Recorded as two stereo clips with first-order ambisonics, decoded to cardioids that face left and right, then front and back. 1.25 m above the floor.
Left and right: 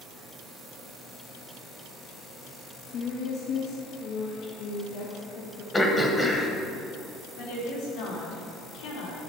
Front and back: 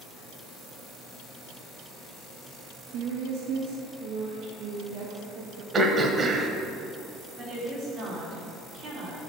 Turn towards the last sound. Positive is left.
turn(degrees=110)